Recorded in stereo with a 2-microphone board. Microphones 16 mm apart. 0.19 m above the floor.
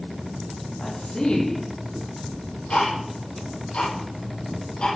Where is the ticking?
80° left, 7.5 m.